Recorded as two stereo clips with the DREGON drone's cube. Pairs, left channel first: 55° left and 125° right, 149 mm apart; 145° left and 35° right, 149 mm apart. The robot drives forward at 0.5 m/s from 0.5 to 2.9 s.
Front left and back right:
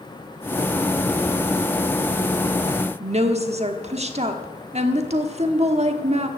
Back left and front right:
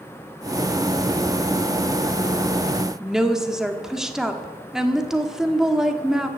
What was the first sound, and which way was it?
A woman speaking, 120° right.